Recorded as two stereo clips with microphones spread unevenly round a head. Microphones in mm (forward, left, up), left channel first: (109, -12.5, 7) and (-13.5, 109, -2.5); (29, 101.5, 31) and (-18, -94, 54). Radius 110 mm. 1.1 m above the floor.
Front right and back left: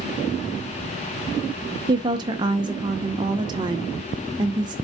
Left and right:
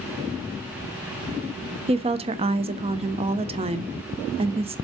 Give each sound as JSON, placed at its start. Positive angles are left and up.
{"t": 1.9, "sound": "a woman speaking", "azimuth_deg": -165, "distance_m": 0.7}